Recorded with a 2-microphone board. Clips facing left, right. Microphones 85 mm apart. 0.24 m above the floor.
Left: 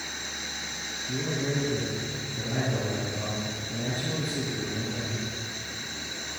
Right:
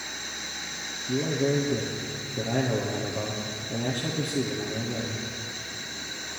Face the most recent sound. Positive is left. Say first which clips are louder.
# right 5 dB
turn(degrees=-70)  # may be behind; listen again after turning